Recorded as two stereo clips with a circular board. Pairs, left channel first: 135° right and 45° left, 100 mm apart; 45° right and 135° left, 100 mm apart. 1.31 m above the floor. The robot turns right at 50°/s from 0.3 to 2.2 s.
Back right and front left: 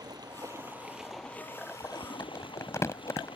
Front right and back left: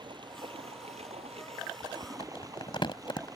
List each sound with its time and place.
0.0 s running water: 95° left; by 3.4 s 170° right
2.2 s crumpling: 75° right